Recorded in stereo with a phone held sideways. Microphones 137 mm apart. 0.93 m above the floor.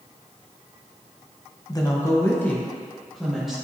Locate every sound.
1.7 s a woman speaking: 30° left (ahead or behind), 0.9 m; by 3.5 s centre (ahead or behind), 1.4 m